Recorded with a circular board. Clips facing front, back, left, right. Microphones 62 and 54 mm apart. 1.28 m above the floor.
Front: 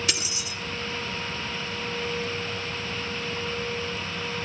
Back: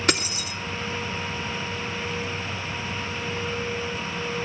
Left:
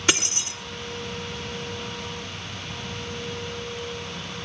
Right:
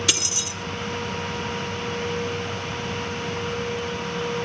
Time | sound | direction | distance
0.1 | keys jangling | 145° left | 1.4 m